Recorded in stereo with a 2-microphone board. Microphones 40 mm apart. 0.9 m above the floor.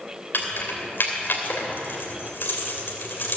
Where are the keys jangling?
65° left (ahead or behind), 2.5 m.